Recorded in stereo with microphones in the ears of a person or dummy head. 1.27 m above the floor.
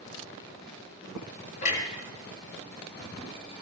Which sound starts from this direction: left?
A clunk, at 1.6 s.